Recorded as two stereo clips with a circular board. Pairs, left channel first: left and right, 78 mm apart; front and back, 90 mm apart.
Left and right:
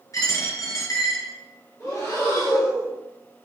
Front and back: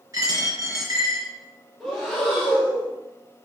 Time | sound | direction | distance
0.1 | a dropped coin | 130° left | 1.3 m
1.8 | breathing | 90° left | 1.3 m